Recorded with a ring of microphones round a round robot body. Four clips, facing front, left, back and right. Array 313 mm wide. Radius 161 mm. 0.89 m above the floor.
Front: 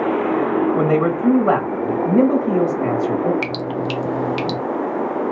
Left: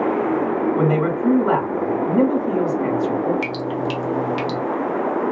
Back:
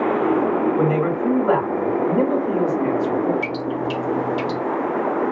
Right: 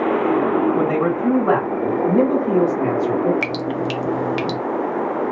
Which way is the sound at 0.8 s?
10° right.